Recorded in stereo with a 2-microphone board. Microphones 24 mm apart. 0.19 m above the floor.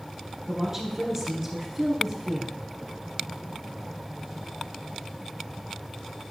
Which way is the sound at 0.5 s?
20° right (ahead or behind).